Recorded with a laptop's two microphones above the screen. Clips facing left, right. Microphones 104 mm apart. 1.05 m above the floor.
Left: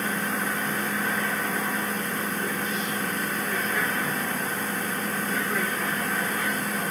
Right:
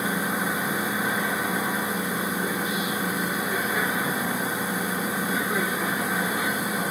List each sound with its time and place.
0.0 s a machine running: 10° right (ahead or behind), 0.7 m